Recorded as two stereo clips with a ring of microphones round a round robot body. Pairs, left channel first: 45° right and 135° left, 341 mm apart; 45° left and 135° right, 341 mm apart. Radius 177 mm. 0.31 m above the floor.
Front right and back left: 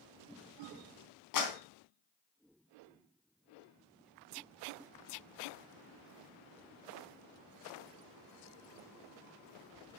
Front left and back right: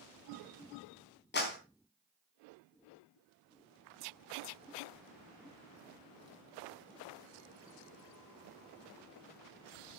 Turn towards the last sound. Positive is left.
turn(degrees=-15)